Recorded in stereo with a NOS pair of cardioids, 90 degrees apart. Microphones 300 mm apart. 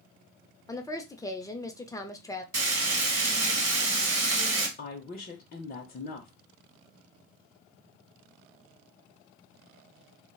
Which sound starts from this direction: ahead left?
A woman speaking, at 4.8 s.